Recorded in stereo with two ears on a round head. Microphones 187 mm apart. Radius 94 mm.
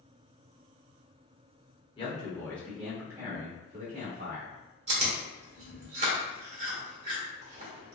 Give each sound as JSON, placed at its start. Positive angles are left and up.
{"t": 2.0, "sound": "a man speaking", "side_deg": 25, "distance_m": 1.0}
{"t": 4.9, "sound": "chewing", "side_deg": -30, "distance_m": 1.1}